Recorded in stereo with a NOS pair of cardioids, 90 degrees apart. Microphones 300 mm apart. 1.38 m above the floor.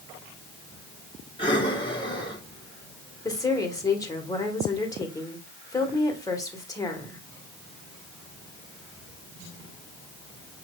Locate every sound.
1.4 s breathing: 15° left, 1.6 m
3.2 s a woman speaking: 10° left, 1.7 m